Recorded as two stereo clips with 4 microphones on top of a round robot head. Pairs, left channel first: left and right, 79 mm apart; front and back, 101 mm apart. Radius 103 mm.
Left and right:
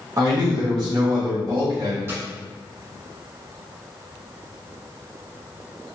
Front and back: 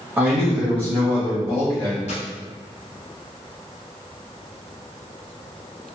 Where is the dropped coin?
35° right, 1.3 m.